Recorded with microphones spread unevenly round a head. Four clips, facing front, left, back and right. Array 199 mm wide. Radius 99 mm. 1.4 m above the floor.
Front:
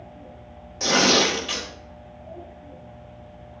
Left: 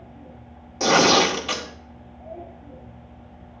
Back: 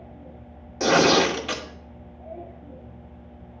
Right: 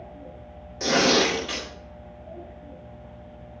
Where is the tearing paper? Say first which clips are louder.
Left 4 dB, back 3 dB; 125° left, 2 m.